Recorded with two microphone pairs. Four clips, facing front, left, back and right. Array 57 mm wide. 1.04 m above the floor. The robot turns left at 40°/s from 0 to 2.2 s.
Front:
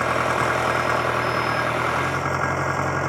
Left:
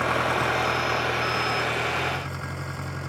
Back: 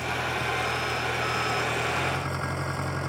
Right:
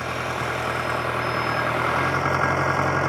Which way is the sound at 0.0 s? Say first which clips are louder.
Left 3 dB, front 8 dB; 30° left.